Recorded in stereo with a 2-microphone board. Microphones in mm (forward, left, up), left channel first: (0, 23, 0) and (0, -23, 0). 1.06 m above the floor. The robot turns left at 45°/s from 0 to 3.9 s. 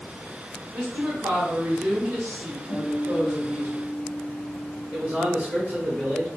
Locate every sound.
0.7 s a woman speaking: 65° right, 1.1 m; by 3.7 s 160° left, 1.1 m
2.7 s a guitar: 35° right, 1.4 m; by 5.2 s 90° right, 1.4 m
4.9 s a man speaking: 35° right (ahead or behind), 1.5 m